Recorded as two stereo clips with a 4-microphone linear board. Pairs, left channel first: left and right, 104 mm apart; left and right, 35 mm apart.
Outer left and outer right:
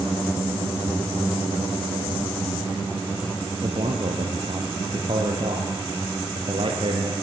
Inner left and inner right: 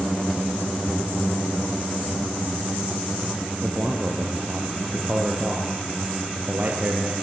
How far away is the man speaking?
About 3 m.